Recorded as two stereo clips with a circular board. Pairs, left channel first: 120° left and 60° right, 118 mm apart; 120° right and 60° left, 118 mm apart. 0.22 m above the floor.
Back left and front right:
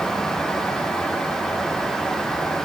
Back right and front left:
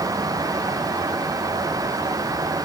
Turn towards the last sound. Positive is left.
No sound to turn to.